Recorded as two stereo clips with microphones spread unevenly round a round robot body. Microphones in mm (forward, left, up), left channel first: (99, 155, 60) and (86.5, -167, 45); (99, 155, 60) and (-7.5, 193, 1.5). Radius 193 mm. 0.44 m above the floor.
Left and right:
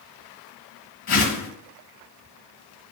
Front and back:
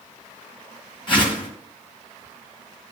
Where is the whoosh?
35° left, 1.3 m.